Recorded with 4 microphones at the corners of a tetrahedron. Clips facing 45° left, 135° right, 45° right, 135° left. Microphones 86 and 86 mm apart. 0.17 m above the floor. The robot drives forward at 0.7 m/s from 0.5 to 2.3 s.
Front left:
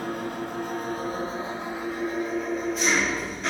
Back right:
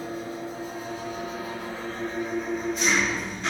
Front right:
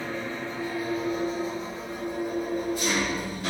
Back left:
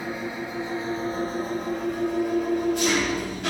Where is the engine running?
60° left, 1.0 m; by 3.5 s 135° left, 1.2 m.